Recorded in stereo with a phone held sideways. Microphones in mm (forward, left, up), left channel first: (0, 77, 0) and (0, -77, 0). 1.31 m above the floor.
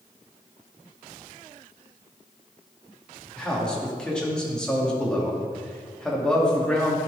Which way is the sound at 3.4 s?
5° left (ahead or behind).